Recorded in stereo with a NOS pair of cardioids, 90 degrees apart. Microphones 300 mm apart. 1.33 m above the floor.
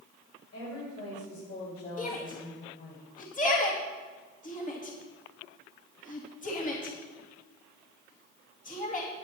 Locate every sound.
0.5 s a woman speaking: 60° left, 6 m; by 3.0 s 35° left, 5.5 m
2.0 s a shout: 25° left, 2.5 m